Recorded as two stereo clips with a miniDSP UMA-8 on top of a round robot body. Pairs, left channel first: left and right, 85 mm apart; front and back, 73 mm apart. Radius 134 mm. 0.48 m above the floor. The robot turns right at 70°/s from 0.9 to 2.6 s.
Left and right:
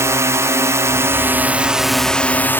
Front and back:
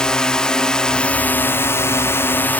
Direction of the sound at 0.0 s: 70° right.